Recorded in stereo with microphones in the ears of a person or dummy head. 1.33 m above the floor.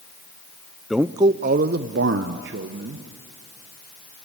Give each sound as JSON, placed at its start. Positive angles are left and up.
{"t": 0.9, "sound": "a man speaking", "side_deg": 0, "distance_m": 0.6}